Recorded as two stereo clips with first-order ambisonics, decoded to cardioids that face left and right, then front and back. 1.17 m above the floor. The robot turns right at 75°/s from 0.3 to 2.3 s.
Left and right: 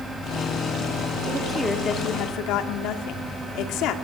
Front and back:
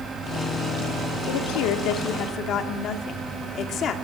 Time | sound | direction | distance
1.3 | a woman speaking | 25° right | 2.5 m